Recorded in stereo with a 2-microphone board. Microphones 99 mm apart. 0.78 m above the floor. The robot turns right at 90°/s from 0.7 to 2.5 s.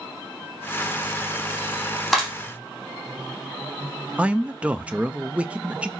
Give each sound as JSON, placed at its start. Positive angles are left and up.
{"t": 2.1, "sound": "a clap", "side_deg": 0, "distance_m": 4.0}
{"t": 4.2, "sound": "a man speaking", "side_deg": -15, "distance_m": 0.6}